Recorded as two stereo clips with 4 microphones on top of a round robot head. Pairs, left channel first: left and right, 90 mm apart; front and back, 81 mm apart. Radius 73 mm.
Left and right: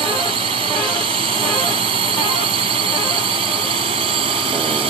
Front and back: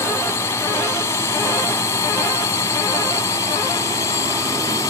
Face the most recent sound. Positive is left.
turn(degrees=-60)